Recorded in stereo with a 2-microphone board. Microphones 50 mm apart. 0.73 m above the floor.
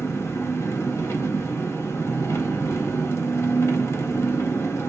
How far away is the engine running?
About 1.4 m.